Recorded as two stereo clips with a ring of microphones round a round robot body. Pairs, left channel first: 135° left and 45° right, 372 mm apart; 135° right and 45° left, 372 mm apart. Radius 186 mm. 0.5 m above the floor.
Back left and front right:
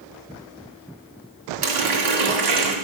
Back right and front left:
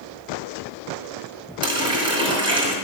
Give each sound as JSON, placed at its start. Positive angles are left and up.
{"t": 1.6, "sound": "a running tap", "azimuth_deg": -35, "distance_m": 2.5}